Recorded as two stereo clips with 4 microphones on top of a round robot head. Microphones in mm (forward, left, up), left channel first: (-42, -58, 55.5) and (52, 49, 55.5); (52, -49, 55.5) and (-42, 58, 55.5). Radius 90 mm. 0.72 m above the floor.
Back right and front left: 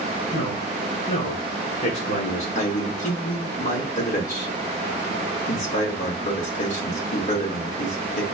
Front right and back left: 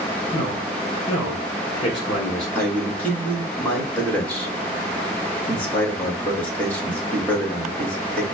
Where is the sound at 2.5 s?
125° right, 2.0 m.